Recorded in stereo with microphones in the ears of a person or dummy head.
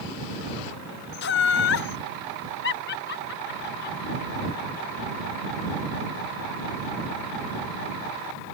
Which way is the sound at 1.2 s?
50° left (ahead or behind).